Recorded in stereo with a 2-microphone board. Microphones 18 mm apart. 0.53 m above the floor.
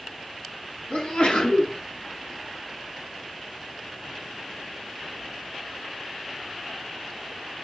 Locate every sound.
0.9 s a sneeze: 80° left, 4 m